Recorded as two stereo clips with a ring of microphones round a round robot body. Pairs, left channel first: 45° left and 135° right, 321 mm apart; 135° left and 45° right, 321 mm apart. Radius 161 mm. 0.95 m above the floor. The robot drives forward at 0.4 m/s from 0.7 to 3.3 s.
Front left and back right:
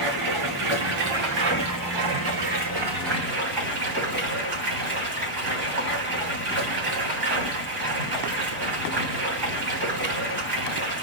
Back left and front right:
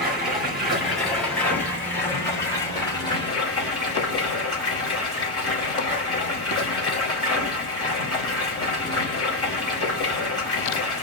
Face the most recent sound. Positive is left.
turn(degrees=-150)